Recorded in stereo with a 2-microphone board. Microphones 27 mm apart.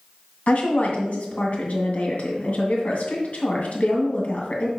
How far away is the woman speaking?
About 2 m.